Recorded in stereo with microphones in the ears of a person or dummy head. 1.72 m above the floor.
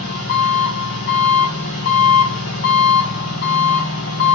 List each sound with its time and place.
0.0 s an engine running: 60° left (ahead or behind), 1.4 m